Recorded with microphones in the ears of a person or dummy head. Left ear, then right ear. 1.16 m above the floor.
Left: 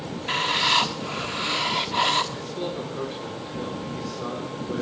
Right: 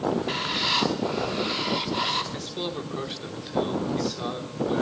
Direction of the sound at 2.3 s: 35° right (ahead or behind).